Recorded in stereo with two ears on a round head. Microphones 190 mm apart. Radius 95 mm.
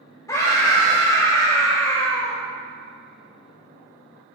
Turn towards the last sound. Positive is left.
turn(degrees=15)  # may be behind; listen again after turning